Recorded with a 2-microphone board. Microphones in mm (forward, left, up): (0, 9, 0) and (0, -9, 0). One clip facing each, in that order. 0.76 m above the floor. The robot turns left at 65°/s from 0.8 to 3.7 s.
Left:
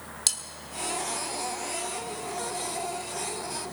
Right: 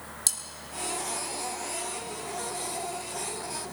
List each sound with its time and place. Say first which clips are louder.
0.3 s cutlery clinking: left 3 dB; 25° left (ahead or behind), 0.9 m